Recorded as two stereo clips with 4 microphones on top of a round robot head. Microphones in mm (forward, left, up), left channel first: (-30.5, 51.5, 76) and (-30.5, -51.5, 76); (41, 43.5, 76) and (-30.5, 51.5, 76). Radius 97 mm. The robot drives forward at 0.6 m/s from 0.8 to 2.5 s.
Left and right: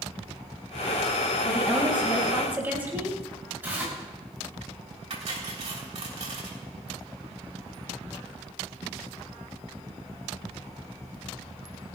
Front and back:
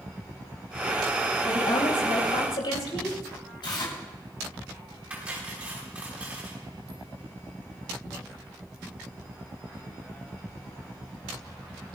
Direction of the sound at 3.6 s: 15° right.